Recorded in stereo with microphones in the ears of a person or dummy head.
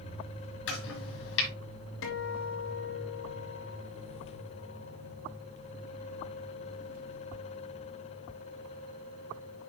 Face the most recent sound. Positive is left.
turn(degrees=70)  # may be behind; listen again after turning